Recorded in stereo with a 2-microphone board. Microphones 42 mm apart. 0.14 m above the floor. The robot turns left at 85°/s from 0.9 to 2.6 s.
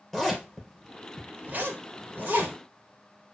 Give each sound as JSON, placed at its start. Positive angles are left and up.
{"t": 0.1, "sound": "a zipper", "side_deg": 5, "distance_m": 2.5}